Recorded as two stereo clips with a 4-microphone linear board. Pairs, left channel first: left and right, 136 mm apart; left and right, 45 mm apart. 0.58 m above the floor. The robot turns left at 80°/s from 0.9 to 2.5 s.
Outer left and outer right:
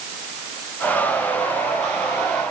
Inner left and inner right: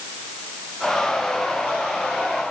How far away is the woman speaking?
I don't hear a woman speaking.